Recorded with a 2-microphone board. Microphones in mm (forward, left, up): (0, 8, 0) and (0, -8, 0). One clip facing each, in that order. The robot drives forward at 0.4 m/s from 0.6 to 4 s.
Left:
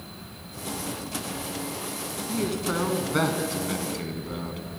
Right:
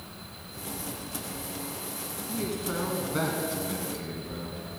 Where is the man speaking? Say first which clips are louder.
Left 4 dB; 30° left (ahead or behind), 3 m; by 4.6 s 35° left (ahead or behind), 2.5 m.